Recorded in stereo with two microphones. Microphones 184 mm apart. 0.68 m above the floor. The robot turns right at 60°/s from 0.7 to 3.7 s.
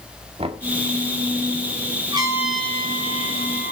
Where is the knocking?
30° right (ahead or behind), 1.5 m.